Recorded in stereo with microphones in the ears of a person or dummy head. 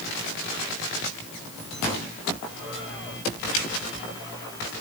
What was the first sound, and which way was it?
Only background noise.